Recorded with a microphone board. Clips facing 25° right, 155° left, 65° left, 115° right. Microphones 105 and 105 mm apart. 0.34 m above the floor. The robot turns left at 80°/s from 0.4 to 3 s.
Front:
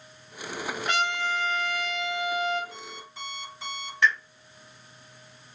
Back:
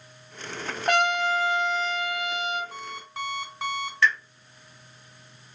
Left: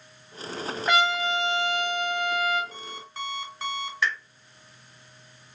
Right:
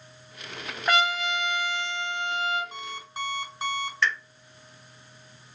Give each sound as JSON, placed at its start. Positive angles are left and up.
{"t": 0.9, "sound": "a trumpet", "azimuth_deg": 165, "distance_m": 1.0}
{"t": 2.7, "sound": "an alarm clock", "azimuth_deg": -160, "distance_m": 1.7}
{"t": 4.0, "sound": "a pop", "azimuth_deg": 10, "distance_m": 1.4}